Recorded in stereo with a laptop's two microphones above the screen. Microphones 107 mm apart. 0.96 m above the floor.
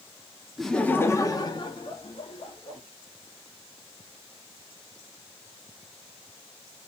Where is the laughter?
Centre (ahead or behind), 0.6 m; by 2.8 s 65° left (ahead or behind), 1.4 m.